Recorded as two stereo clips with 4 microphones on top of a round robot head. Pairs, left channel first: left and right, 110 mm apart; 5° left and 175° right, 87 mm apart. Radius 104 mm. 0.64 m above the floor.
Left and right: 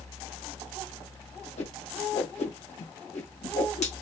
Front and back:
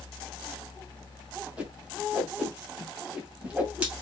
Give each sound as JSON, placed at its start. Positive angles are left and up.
{"t": 1.6, "sound": "a whoosh", "azimuth_deg": 110, "distance_m": 2.0}